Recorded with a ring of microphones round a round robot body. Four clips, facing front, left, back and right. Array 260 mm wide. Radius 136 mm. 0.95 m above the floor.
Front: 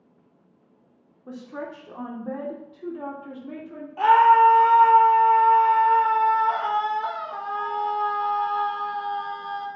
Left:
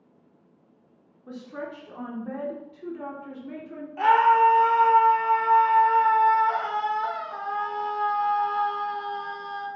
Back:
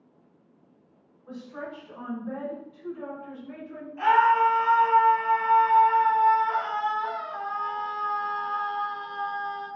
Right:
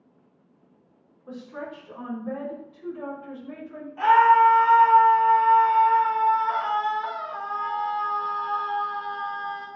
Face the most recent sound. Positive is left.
turn(degrees=30)